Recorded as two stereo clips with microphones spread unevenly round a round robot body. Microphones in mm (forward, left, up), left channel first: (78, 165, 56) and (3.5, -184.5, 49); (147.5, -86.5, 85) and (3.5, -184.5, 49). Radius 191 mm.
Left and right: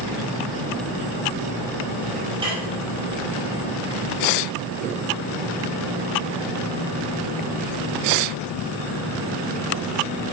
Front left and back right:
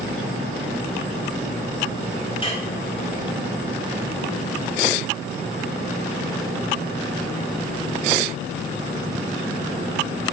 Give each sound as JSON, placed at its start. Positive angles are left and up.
{"t": 2.4, "sound": "dishes clattering", "azimuth_deg": -25, "distance_m": 5.0}